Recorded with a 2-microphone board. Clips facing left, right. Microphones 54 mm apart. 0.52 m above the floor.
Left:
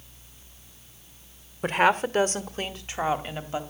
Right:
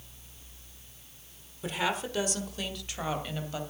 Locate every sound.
1.6 s a woman speaking: 55° left (ahead or behind), 1.1 m; by 3.6 s 30° left (ahead or behind), 2.5 m